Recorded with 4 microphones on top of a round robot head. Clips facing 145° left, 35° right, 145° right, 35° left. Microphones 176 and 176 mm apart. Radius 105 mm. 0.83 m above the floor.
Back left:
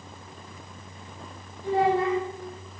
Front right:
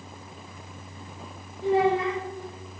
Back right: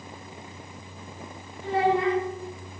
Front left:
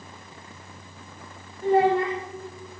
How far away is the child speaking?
About 1.9 m.